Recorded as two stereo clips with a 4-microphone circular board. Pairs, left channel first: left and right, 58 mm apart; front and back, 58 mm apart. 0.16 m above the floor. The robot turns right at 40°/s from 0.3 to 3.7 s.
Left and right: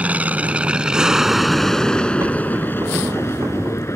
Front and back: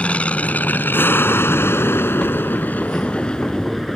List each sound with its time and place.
0.0 s an aircraft: 45° right; by 4.0 s 85° left